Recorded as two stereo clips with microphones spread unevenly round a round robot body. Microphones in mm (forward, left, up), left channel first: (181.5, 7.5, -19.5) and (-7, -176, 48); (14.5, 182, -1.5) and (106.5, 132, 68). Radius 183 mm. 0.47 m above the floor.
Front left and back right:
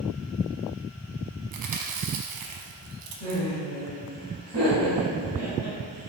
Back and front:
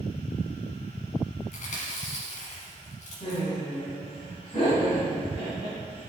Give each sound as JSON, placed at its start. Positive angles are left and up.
{"t": 1.5, "sound": "chewing", "azimuth_deg": -170, "distance_m": 0.9}
{"t": 3.2, "sound": "laughter", "azimuth_deg": -175, "distance_m": 4.0}